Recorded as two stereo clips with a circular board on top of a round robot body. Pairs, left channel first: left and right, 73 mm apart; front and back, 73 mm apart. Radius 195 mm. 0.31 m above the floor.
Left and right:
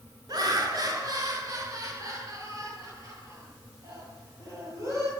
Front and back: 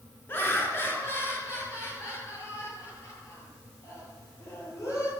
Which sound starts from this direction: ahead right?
Laughter, at 0.3 s.